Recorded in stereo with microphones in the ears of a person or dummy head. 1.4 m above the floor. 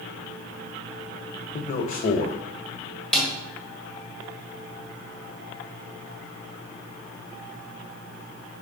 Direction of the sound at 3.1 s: 5° left (ahead or behind).